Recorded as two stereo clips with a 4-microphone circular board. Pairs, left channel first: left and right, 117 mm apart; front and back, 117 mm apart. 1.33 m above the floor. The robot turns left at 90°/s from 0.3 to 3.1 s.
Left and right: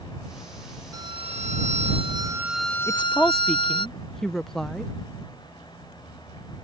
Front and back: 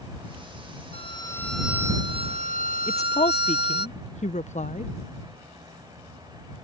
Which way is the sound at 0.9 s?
30° right.